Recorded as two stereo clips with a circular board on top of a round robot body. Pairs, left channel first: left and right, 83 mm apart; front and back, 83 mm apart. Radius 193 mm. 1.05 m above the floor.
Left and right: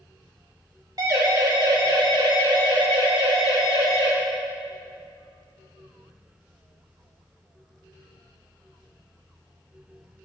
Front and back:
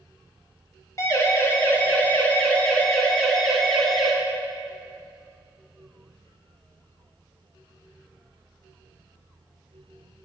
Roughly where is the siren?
Ahead right.